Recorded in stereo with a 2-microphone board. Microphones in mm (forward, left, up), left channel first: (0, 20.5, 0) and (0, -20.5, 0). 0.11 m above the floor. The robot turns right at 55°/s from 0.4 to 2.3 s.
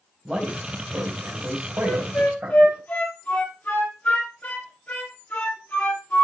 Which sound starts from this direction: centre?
A man speaking, at 0.2 s.